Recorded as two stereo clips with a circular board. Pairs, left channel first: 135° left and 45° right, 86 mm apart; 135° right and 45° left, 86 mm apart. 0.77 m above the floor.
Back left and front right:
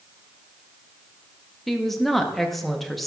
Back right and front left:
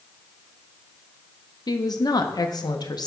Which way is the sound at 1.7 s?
140° right.